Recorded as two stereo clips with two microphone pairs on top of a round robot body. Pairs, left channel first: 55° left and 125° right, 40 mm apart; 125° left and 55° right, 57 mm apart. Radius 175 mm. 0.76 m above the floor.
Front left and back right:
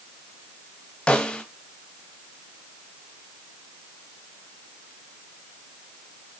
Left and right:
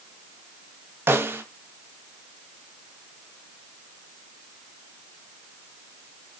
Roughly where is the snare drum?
Ahead.